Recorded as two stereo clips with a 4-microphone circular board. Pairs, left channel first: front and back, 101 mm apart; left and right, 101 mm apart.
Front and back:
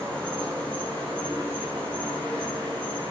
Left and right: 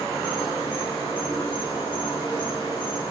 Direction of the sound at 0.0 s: 145° left.